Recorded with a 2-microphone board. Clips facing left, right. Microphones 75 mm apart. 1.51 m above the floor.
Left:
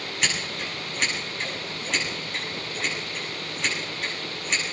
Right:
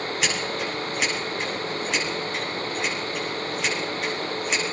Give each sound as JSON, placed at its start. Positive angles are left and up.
{"t": 0.2, "sound": "scissors", "side_deg": -5, "distance_m": 8.5}